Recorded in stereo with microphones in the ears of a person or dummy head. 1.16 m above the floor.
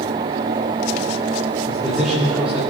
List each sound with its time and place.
1.7 s a man speaking: 5° left (ahead or behind), 3 m; by 2.7 s 15° right (ahead or behind), 3.5 m